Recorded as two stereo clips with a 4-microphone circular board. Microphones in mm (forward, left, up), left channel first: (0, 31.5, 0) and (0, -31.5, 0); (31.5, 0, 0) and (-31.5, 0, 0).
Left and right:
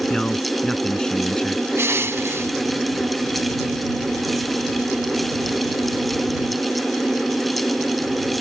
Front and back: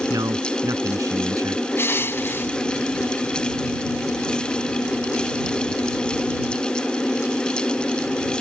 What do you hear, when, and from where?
0.1 s a man speaking: 165° left
1.8 s crushing: 50° right